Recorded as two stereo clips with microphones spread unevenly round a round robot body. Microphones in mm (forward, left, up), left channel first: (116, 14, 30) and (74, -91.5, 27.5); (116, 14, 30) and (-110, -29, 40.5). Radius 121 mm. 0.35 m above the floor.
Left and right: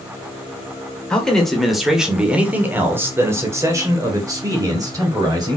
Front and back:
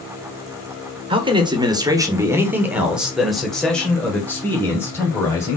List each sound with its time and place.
1.1 s a man speaking: 145° left, 1.6 m; by 5.6 s 65° right, 2.5 m